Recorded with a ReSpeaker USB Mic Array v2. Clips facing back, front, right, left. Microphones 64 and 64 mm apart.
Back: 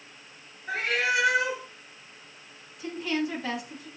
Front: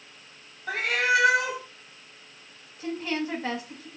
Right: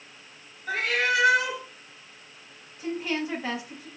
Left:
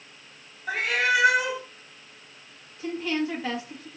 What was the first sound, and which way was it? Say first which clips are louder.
A cat meowing: front 3 dB, left 1 dB; 10° left.